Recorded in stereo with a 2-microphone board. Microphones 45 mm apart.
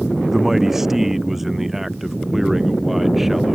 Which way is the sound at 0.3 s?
10° right (ahead or behind).